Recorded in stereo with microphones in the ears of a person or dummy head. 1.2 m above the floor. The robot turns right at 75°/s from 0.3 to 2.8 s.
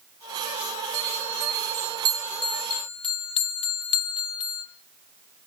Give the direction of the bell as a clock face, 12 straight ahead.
4 o'clock.